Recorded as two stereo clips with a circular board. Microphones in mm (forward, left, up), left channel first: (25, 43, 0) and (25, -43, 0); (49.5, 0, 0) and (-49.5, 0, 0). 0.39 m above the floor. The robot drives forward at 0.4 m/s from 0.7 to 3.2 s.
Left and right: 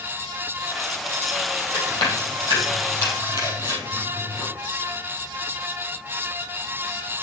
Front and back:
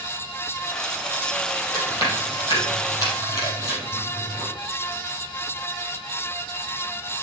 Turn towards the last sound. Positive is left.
turn(degrees=55)